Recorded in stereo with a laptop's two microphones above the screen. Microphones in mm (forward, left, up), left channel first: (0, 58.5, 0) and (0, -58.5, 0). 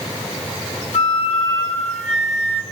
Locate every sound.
0.9 s a flute: 65° left (ahead or behind), 1.1 m